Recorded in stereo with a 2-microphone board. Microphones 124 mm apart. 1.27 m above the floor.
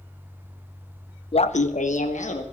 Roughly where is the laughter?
Left.